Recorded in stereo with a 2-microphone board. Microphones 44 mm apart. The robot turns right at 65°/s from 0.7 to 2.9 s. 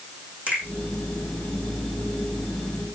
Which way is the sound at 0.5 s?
35° right (ahead or behind).